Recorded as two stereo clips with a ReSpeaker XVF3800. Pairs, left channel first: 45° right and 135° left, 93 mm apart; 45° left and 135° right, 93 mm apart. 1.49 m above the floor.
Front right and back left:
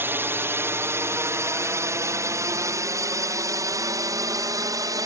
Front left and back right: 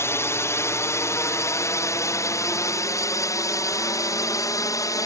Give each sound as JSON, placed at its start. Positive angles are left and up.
{"t": 0.0, "sound": "a drone", "azimuth_deg": 85}